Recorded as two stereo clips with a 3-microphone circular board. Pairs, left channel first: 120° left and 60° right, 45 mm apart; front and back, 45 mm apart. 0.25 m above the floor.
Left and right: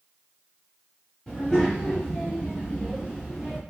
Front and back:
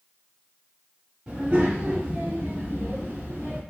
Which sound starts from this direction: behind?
A child speaking, at 1.3 s.